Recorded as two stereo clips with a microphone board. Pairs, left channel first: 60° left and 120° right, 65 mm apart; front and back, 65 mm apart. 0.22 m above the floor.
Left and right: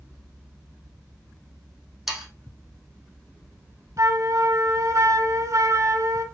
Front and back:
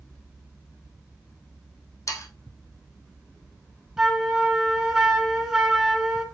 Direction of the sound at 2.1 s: 35° right.